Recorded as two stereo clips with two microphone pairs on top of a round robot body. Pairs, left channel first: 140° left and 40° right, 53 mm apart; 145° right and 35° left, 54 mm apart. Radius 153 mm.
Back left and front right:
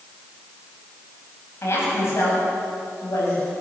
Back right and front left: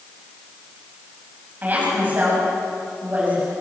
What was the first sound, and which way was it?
A woman speaking, 95° left.